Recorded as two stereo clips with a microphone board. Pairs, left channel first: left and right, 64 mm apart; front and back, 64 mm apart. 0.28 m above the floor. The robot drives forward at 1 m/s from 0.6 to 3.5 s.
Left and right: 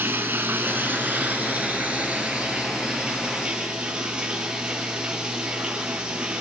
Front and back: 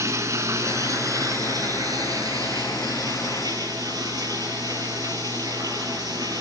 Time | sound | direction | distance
0.0 | running water | 145° right | 2.5 m